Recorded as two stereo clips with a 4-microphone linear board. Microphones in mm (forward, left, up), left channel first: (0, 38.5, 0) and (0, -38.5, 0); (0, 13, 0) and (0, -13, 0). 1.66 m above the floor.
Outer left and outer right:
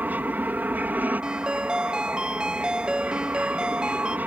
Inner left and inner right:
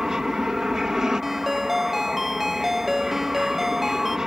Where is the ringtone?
10° right (ahead or behind).